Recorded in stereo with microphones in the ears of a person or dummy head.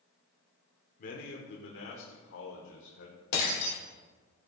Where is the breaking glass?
60° left (ahead or behind), 3.5 m.